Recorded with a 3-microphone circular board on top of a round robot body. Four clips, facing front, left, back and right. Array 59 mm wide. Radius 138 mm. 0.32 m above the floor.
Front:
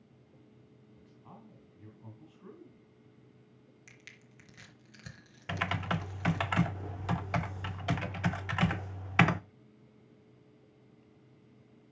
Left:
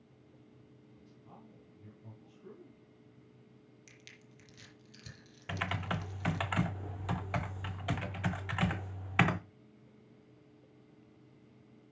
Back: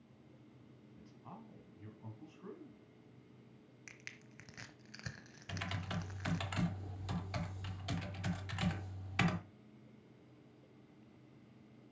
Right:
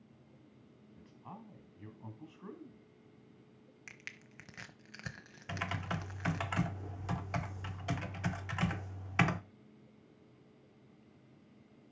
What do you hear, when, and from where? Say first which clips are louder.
1.0 s a man speaking: right 6 dB, back 1 dB; 100° right, 3 m
3.9 s crushing: right 9 dB, back 2 dB; 110° right, 1.2 m
5.5 s typing on a keyboard: left 2 dB, front 10 dB; 15° left, 0.8 m